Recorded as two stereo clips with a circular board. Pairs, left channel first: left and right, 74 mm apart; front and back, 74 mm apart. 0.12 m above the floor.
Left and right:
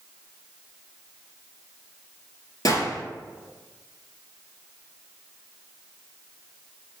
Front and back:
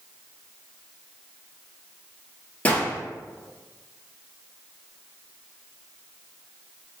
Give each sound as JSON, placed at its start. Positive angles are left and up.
{"t": 2.6, "sound": "a gunshot", "azimuth_deg": 70, "distance_m": 0.7}